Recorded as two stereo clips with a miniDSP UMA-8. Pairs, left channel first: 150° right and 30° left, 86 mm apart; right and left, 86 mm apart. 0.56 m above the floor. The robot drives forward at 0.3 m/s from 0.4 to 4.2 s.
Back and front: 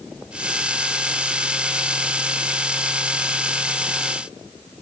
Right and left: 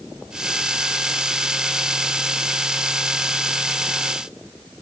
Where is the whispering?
No whispering in this recording.